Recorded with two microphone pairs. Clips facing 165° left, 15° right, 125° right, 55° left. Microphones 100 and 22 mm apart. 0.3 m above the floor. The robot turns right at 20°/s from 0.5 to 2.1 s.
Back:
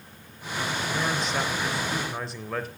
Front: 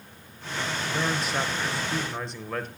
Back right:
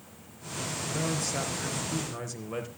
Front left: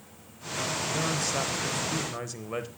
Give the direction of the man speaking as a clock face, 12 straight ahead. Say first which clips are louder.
Front 1 dB, even; 10 o'clock.